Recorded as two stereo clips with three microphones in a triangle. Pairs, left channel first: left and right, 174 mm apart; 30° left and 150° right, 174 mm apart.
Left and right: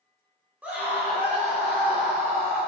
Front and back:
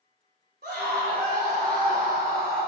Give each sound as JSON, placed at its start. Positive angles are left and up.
{"t": 0.6, "sound": "a scream", "azimuth_deg": -170, "distance_m": 2.5}